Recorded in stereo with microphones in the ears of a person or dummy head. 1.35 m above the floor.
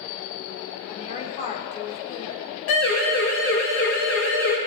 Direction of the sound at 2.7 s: 80° left.